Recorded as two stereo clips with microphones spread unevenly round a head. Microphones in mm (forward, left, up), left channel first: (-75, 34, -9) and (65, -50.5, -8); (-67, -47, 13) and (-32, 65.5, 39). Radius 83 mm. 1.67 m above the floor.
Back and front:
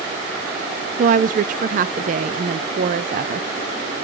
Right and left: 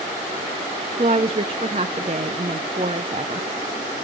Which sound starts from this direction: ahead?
A woman speaking, at 1.0 s.